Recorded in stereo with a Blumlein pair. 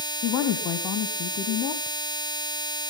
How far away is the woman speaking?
About 1.8 m.